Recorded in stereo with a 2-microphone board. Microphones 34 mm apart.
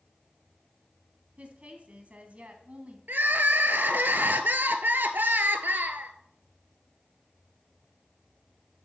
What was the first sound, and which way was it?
A woman speaking, 45° right (ahead or behind).